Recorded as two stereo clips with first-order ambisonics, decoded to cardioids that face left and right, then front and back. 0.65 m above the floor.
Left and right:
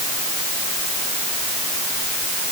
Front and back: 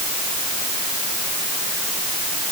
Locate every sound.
Only background noise.